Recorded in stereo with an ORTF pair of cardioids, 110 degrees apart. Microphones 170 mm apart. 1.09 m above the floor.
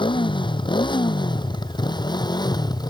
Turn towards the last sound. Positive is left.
turn(degrees=25)